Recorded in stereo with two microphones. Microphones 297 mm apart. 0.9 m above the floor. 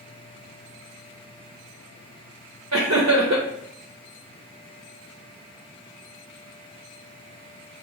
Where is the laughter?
60° right (ahead or behind), 0.9 m.